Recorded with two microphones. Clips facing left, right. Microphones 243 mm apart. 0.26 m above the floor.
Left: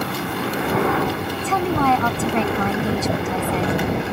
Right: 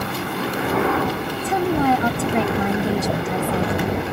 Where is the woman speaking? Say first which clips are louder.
Right 1 dB; 15° right (ahead or behind).